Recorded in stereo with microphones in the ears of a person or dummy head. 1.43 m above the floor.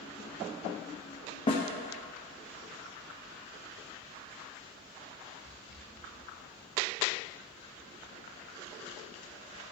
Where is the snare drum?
25° left (ahead or behind), 1.4 m.